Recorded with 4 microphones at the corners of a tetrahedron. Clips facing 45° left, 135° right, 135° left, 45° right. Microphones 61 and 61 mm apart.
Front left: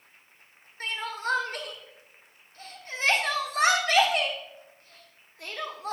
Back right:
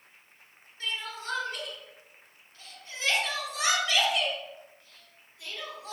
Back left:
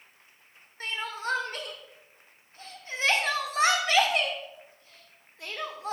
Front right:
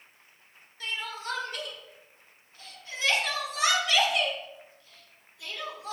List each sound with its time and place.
0.8 s crying: 85° left, 1.4 m